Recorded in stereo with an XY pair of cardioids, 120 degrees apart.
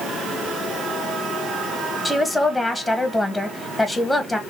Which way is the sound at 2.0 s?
5° left.